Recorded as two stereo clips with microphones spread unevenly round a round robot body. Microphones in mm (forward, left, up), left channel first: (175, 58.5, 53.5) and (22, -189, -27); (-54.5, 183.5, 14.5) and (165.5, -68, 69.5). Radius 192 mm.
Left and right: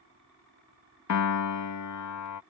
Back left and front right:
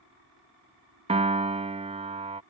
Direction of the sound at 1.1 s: 30° left.